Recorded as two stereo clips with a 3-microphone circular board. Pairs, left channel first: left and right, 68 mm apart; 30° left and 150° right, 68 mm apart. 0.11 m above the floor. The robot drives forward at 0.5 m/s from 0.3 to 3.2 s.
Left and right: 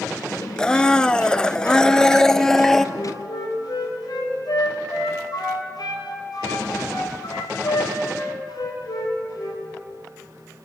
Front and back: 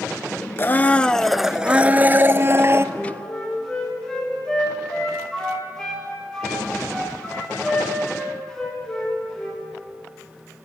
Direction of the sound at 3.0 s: 110° left.